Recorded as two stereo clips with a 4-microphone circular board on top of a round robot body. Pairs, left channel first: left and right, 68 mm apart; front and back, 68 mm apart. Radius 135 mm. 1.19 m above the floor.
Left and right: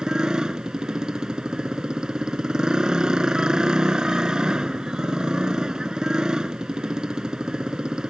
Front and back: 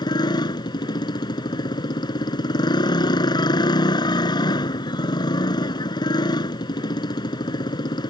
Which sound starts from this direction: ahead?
A motorcycle, at 0.0 s.